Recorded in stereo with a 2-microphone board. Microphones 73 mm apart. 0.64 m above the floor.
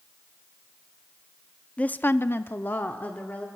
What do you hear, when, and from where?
1.8 s a woman speaking: 15° left (ahead or behind), 0.6 m; by 3.5 s 25° left (ahead or behind), 1.6 m